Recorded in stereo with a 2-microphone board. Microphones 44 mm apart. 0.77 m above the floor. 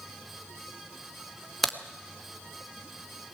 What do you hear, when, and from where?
1.6 s a crack: centre (ahead or behind), 1.5 m